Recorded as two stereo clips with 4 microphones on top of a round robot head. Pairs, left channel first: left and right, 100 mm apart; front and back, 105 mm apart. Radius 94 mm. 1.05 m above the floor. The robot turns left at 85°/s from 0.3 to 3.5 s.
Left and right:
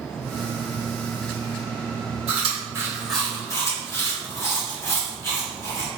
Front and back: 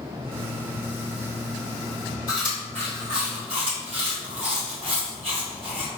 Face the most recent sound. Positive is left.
turn(degrees=150)